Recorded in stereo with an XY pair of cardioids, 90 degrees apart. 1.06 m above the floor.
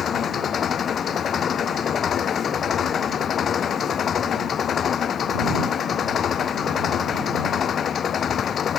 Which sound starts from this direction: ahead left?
An engine running, at 0.0 s.